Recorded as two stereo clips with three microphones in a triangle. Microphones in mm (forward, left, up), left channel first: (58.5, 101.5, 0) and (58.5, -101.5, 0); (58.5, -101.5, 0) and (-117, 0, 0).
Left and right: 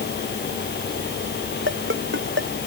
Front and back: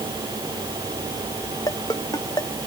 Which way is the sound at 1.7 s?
100° right.